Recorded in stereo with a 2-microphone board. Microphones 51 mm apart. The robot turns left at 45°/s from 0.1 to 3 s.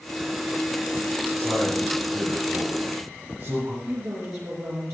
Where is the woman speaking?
65° right (ahead or behind), 7 m.